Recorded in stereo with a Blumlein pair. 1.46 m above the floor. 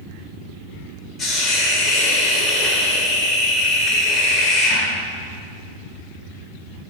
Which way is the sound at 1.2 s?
10° left.